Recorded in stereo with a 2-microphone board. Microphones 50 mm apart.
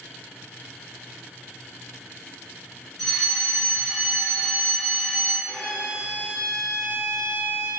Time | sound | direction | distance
3.0 | a fire alarm | centre (ahead or behind) | 0.8 m
5.5 | a violin | 25° left (ahead or behind) | 0.9 m